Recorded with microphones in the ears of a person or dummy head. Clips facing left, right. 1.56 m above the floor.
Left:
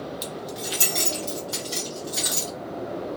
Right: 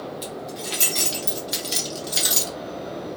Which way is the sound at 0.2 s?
25° left (ahead or behind).